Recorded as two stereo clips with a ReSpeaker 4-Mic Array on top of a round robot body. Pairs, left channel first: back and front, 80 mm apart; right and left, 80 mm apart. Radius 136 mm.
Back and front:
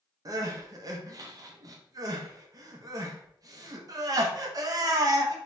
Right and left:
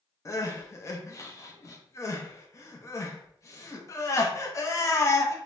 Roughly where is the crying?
Ahead right.